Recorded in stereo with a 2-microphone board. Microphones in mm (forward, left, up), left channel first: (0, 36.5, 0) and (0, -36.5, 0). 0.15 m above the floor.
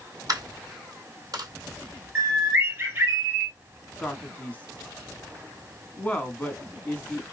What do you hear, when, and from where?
0.3 s a dropped coin: 55° right (ahead or behind), 2 m
2.1 s a bird: 35° right (ahead or behind), 2.5 m
4.0 s a man speaking: 20° left (ahead or behind), 1.1 m